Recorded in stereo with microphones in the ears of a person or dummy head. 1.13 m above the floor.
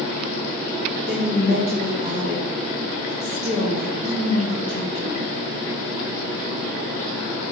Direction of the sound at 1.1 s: 40° right (ahead or behind).